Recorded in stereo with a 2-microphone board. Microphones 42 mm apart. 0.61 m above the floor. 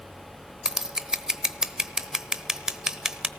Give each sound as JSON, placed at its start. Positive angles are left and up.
{"t": 0.7, "sound": "scissors", "side_deg": -15, "distance_m": 0.9}